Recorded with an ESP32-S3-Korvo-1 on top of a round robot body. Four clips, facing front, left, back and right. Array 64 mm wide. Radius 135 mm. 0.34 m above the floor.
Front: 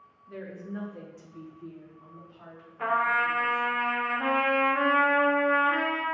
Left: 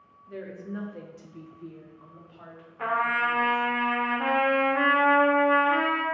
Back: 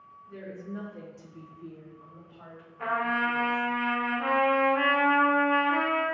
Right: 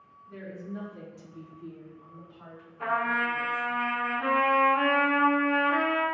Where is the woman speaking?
45° left, 1.3 m; by 3.8 s 120° left, 3 m.